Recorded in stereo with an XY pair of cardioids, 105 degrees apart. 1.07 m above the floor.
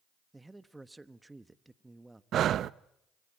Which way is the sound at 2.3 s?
60° right.